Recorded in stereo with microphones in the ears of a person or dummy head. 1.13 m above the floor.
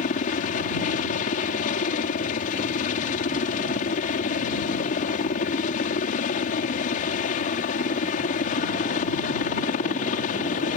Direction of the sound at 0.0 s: 45° left (ahead or behind).